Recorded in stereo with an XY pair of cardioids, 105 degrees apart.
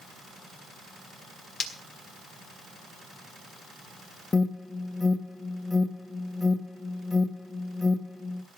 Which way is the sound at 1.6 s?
70° left.